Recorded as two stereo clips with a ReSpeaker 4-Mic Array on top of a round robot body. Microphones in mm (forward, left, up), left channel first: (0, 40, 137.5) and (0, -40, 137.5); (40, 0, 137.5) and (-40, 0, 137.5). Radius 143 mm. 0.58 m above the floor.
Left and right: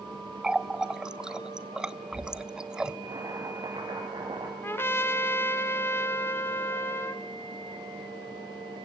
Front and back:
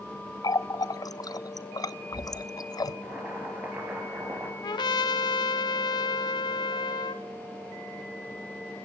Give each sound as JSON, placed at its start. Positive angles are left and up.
{"t": 0.4, "sound": "a running tap", "azimuth_deg": -10, "distance_m": 0.8}
{"t": 3.0, "sound": "boiling", "azimuth_deg": -115, "distance_m": 5.0}
{"t": 4.6, "sound": "a trumpet", "azimuth_deg": 30, "distance_m": 0.5}